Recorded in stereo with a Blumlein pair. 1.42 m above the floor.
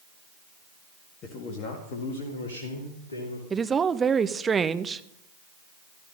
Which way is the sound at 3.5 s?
15° right.